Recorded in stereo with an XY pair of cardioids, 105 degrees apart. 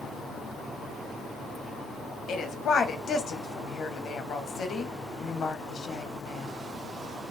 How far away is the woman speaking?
About 0.8 m.